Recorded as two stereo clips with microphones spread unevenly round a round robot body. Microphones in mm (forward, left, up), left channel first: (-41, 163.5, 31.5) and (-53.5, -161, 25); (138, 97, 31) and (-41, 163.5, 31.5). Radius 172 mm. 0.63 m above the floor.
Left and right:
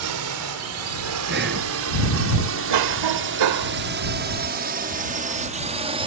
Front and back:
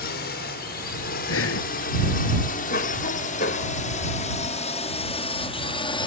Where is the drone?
60° right; by 6.1 s 40° right.